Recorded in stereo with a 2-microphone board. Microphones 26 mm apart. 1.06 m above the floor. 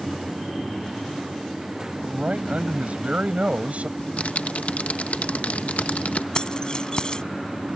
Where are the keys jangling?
35° left (ahead or behind).